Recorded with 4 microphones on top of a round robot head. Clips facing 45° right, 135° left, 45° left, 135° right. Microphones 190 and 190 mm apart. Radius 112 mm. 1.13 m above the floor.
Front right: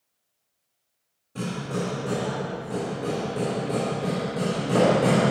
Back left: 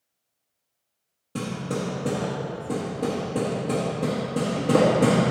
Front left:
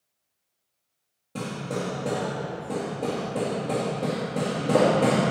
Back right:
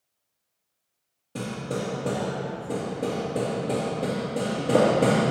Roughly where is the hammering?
Behind left.